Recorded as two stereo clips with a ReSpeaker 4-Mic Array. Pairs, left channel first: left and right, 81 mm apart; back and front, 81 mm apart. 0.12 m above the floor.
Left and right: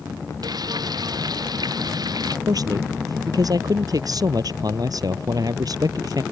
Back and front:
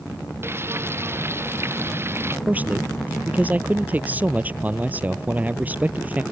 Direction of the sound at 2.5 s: 65° right.